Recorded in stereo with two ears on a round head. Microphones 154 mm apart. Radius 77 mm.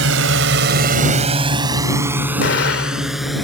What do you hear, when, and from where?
0.0 s a drone: 80° right; by 3.4 s centre (ahead or behind)
2.4 s an explosion: 70° left (ahead or behind)